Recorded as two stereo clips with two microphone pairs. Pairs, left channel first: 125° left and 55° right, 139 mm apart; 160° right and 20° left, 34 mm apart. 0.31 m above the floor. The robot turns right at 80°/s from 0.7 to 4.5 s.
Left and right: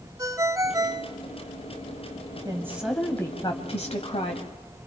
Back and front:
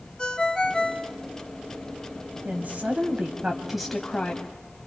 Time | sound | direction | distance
0.2 | a ringtone | 110° right | 1.0 m
2.5 | a woman speaking | 5° right | 2 m